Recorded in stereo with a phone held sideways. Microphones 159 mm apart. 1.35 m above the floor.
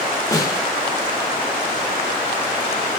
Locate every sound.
0.3 s a snare drum: 20° left (ahead or behind), 2.5 m